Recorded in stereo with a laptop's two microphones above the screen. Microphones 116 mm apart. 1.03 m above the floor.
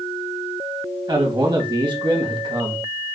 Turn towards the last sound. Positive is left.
turn(degrees=-40)  # may be behind; listen again after turning